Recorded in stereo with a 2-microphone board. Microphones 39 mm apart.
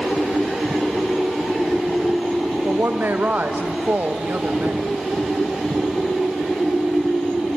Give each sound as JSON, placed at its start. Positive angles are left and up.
{"t": 2.6, "sound": "a woman speaking", "side_deg": -60, "distance_m": 1.5}